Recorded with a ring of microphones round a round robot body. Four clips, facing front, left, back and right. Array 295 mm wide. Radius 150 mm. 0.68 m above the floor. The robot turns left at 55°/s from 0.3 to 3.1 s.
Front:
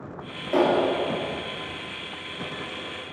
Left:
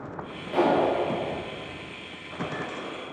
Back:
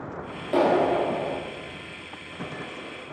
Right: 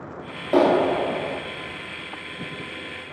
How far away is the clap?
About 1.3 m.